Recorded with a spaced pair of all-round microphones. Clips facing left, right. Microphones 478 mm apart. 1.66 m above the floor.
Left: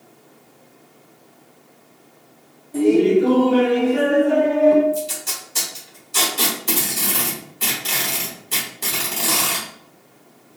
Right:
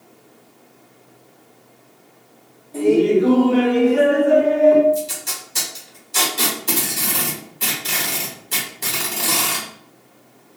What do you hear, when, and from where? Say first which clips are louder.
2.7 s laughter: even; 35° left (ahead or behind), 0.7 m; by 4.8 s 60° left (ahead or behind), 1.5 m
4.9 s tape being pulled: right 2 dB; centre (ahead or behind), 1.2 m